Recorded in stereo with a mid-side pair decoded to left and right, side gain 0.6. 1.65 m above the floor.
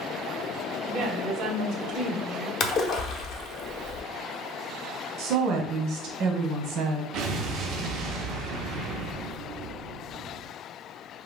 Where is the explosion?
65° right, 0.6 m.